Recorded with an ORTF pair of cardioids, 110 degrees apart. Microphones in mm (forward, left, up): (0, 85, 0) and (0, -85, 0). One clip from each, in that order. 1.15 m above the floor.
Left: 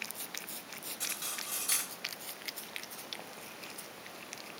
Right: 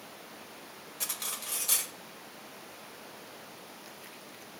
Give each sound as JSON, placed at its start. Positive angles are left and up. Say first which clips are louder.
{"t": 1.0, "sound": "cutlery clinking", "louder": "right 2 dB", "azimuth_deg": -25, "distance_m": 1.0}